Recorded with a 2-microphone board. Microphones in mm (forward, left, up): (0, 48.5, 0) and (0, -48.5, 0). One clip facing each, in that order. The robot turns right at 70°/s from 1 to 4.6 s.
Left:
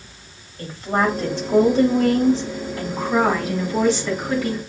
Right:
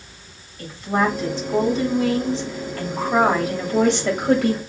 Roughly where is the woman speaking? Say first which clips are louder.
Even; ahead left.